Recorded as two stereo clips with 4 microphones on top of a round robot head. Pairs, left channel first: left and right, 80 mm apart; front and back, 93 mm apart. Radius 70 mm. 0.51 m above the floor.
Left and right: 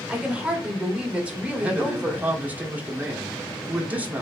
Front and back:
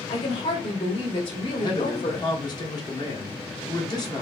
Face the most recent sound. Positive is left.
turn(degrees=-20)